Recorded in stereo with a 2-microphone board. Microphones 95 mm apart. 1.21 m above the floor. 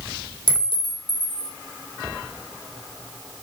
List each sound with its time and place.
0.5 s a clink: 70° left (ahead or behind), 2.5 m